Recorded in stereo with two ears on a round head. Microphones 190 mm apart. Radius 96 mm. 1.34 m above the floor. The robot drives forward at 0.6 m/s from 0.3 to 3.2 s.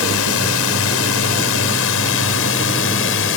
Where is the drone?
80° left; by 3.4 s 70° left (ahead or behind).